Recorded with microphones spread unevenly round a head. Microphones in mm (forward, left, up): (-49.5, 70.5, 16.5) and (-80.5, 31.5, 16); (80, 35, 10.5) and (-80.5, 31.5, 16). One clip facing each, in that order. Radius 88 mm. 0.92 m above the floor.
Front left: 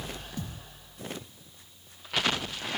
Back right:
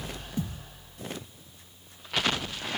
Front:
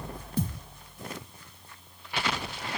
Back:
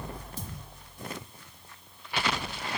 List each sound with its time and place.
0.4 s a thud: 45° right, 3 m